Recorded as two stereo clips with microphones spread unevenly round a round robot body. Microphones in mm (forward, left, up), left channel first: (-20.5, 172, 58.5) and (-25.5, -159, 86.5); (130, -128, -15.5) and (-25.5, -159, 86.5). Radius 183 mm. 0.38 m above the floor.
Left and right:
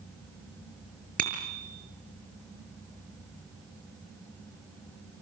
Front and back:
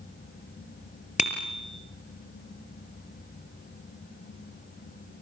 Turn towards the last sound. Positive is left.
turn(degrees=-25)